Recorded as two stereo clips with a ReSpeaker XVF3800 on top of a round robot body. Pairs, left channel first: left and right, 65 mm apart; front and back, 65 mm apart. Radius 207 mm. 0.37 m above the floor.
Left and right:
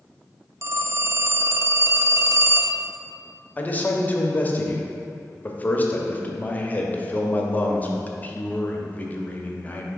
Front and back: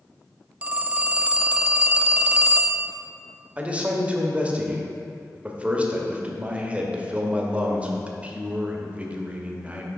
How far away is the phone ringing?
About 0.6 m.